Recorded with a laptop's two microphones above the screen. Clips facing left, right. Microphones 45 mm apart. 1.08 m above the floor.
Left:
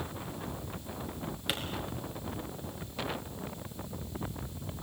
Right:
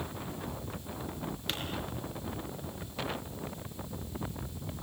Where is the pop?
10° left (ahead or behind), 5 m.